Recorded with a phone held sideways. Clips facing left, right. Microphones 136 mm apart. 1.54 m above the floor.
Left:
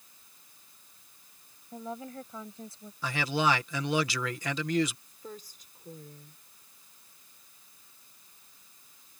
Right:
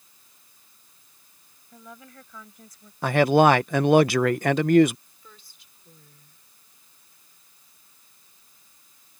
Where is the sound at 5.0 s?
45° left (ahead or behind).